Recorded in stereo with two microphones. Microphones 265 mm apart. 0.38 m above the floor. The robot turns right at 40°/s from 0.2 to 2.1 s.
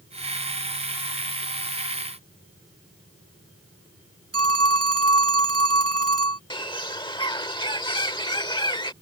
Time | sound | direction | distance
4.3 | a phone ringing | 65° right (ahead or behind) | ?
6.5 | a bird | 15° left (ahead or behind) | ?